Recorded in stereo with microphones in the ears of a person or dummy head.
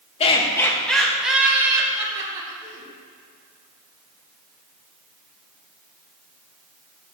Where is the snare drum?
No snare drum in this recording.